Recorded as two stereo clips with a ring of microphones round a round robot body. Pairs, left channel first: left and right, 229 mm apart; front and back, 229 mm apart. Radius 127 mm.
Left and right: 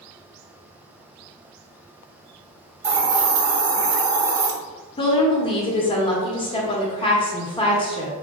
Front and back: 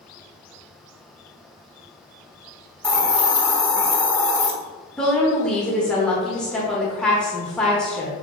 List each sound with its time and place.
2.8 s a hiss: 80° right, 0.9 m
5.0 s a woman speaking: 80° left, 0.8 m